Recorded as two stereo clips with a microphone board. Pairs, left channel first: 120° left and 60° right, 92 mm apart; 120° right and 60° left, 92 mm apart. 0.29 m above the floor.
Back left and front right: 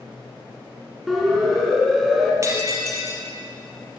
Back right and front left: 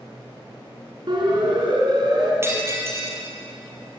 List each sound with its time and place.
1.1 s a siren: 30° left, 4.5 m
2.4 s breaking glass: 5° right, 4 m